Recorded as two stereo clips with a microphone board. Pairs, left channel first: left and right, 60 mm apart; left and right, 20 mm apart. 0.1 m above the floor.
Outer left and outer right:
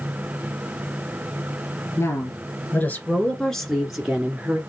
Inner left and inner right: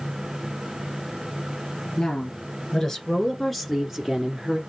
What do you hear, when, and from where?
2.0 s a woman speaking: 50° left (ahead or behind), 1.7 m; by 4.6 s 25° right (ahead or behind), 1.4 m